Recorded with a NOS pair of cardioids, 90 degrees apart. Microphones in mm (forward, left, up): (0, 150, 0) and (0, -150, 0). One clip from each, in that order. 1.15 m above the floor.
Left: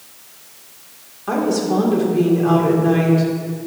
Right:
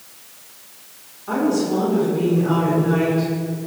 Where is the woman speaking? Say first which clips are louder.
Left 1 dB; 50° left, 3.5 m.